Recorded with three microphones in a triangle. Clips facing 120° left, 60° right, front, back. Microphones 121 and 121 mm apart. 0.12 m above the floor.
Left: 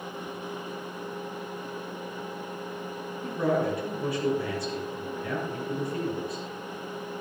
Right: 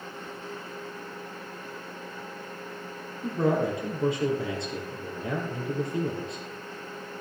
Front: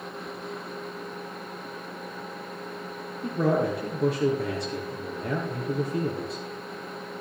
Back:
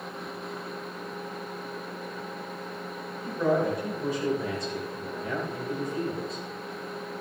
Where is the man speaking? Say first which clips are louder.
Right 1 dB, front 1 dB; 5° left, 4.5 m.